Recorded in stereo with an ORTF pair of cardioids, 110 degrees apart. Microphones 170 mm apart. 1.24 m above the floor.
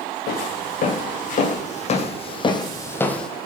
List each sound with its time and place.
0.3 s footsteps: 55° left, 5 m; by 3.3 s straight ahead, 2 m